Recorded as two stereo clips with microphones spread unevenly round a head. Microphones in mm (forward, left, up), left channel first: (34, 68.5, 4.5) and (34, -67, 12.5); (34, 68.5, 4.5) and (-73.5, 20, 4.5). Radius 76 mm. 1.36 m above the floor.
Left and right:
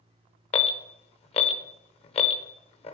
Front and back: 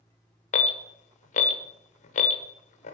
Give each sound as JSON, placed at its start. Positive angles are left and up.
{"t": 0.5, "sound": "an alarm", "azimuth_deg": 45, "distance_m": 0.9}